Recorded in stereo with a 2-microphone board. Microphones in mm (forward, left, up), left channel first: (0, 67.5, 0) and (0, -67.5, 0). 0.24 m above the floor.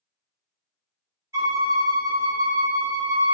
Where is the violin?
20° right (ahead or behind), 1.3 m.